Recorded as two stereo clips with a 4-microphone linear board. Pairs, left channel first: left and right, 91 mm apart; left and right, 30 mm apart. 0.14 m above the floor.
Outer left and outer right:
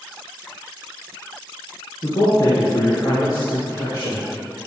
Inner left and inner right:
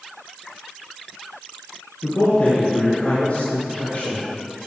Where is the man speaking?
55° left (ahead or behind), 3 m; by 4.2 s 65° left (ahead or behind), 5 m.